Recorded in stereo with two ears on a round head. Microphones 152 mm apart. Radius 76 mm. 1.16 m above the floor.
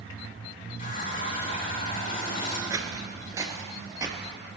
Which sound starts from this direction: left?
A running tap, at 0.8 s.